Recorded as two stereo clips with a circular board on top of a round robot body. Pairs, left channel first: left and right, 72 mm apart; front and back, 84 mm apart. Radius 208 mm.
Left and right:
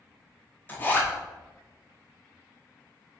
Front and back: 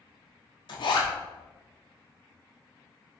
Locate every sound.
0.7 s a zipper: 25° left, 0.8 m